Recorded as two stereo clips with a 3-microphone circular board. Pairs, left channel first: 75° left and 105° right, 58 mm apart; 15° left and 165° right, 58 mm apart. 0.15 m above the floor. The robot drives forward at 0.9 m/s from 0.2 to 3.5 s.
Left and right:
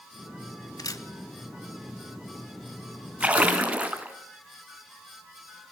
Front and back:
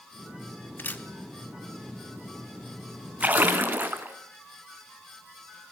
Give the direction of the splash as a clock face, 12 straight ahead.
5 o'clock.